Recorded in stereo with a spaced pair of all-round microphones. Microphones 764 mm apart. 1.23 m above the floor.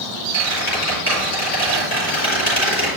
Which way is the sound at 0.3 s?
15° left (ahead or behind).